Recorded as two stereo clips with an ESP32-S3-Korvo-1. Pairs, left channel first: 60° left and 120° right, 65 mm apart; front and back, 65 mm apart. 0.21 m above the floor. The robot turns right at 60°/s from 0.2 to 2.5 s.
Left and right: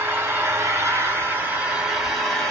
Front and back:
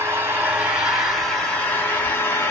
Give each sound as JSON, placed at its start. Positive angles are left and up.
{"t": 0.0, "sound": "an engine running", "azimuth_deg": -155, "distance_m": 1.6}